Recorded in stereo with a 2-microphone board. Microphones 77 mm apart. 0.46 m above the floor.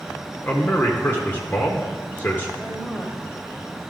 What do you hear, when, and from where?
0.4 s a man speaking: 30° left (ahead or behind), 1.0 m
2.6 s a woman speaking: 15° left (ahead or behind), 1.9 m